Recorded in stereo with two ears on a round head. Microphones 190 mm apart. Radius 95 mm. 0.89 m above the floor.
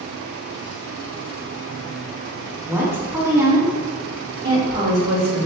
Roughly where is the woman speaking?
Centre.